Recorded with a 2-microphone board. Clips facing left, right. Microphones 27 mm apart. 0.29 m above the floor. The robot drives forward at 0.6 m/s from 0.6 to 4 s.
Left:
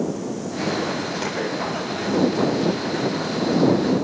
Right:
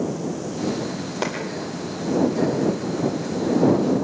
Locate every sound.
1.2 s a clap: 25° right (ahead or behind), 10 m